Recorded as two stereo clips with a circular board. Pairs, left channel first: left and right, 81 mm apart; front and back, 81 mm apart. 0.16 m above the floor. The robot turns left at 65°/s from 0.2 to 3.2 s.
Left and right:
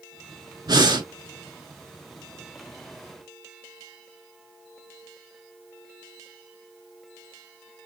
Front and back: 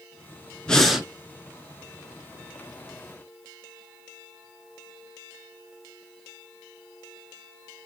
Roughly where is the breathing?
Right.